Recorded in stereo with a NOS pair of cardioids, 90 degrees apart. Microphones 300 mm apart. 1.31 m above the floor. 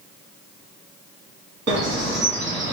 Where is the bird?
40° right, 2.5 m.